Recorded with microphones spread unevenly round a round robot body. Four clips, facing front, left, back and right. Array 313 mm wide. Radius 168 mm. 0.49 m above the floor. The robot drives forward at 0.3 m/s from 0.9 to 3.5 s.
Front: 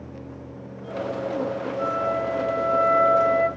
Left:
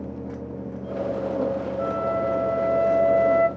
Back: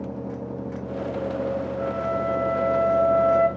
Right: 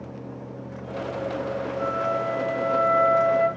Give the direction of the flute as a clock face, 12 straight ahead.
10 o'clock.